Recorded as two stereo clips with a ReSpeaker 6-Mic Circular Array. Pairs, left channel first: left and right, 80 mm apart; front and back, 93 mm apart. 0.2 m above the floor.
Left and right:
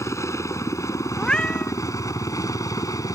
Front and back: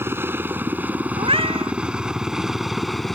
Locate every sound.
0.0 s a helicopter: 125° left; by 3.1 s 85° left
1.2 s a cat meowing: 165° left